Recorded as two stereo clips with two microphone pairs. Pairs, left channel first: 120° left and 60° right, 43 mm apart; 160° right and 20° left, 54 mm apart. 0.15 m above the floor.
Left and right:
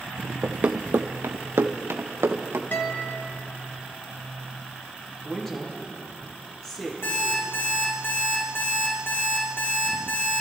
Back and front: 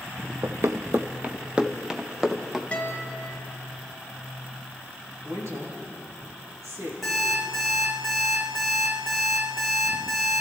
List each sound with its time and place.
0.4 s running footsteps: 5° right, 0.7 m; by 2.6 s 70° right, 1.9 m
2.7 s a guitar: 140° left, 1.9 m
5.2 s a woman speaking: 40° left, 5 m
7.0 s an alarm clock: 110° left, 6 m